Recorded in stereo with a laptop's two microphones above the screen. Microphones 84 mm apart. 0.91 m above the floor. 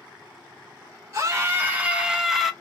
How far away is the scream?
About 1.1 m.